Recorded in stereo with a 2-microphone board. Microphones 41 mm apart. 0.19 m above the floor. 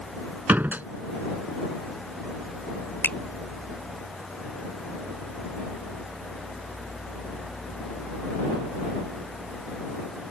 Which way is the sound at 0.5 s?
50° right (ahead or behind).